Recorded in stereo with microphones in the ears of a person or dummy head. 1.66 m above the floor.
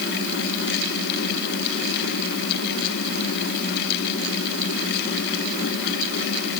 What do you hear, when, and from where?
Only background noise.